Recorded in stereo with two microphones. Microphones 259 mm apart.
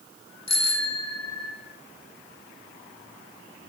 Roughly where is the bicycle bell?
Left.